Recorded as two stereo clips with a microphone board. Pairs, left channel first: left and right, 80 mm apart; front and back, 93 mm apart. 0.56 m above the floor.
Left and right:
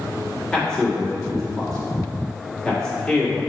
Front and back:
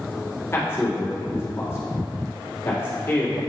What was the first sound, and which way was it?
A man speaking, 20° left.